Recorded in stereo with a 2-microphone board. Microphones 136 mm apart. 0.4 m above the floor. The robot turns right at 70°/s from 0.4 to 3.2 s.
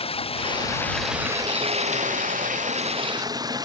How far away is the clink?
No clink in this recording.